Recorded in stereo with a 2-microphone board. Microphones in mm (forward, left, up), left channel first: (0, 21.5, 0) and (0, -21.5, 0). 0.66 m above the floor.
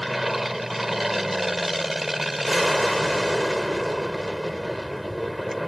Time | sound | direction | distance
0.0 | an aircraft | 5° right (ahead or behind) | ?